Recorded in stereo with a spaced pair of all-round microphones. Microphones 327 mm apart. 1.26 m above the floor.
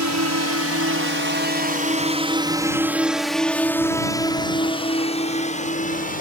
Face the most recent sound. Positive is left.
turn(degrees=25)  # may be behind; listen again after turning